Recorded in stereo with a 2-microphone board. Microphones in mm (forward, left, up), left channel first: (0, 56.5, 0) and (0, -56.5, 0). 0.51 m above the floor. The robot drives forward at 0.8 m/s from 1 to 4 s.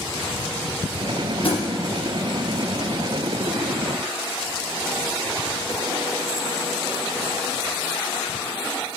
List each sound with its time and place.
1.4 s a thud: 60° left (ahead or behind), 3.5 m